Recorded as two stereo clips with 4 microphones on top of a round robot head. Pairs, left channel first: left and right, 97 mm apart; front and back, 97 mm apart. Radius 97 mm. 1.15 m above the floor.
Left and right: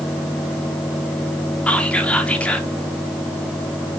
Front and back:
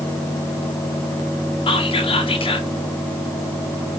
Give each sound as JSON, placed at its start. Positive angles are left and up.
{"t": 1.7, "sound": "whispering", "azimuth_deg": 15, "distance_m": 1.3}